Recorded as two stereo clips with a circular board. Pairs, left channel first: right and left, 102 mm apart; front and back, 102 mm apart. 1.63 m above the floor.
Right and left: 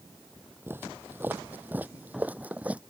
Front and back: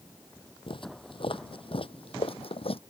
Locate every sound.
0.7 s footsteps: 25° left; by 2.8 s 15° left